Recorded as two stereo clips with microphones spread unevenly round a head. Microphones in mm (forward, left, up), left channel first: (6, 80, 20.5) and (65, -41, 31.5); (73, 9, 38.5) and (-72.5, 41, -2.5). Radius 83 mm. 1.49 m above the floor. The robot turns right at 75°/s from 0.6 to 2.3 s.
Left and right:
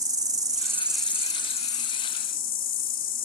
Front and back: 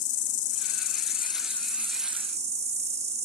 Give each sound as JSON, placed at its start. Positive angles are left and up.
{"t": 0.0, "sound": "an insect", "azimuth_deg": 0, "distance_m": 1.1}